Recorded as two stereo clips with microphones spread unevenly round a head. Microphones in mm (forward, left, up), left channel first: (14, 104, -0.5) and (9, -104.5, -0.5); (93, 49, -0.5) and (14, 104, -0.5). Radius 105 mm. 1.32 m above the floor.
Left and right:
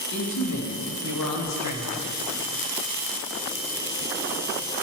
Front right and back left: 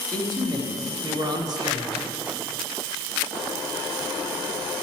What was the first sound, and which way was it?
A man speaking, 95° left.